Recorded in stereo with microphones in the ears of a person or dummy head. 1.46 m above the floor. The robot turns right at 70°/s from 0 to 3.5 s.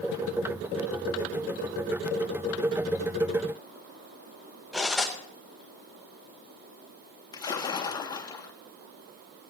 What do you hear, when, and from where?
4.7 s cutlery clinking: 5° right (ahead or behind), 0.7 m
7.3 s a splash: 15° left (ahead or behind), 0.9 m